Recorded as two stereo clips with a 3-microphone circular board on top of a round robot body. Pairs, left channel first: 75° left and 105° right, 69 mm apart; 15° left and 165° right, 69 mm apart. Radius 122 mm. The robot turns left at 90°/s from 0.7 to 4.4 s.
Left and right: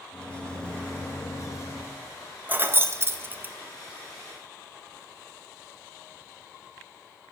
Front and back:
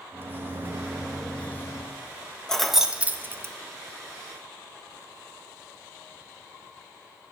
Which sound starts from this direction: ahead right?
Keys jangling, at 2.5 s.